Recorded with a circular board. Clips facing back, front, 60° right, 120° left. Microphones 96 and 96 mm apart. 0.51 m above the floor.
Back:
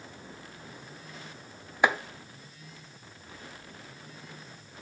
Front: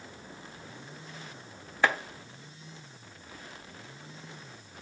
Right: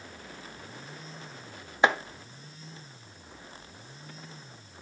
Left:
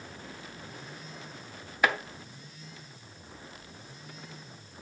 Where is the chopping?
115° right, 0.7 m.